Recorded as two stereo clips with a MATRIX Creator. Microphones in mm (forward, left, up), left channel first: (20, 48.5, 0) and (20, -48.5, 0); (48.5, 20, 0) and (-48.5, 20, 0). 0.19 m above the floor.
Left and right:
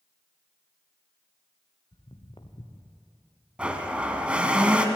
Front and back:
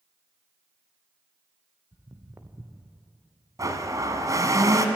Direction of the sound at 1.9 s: 125° left.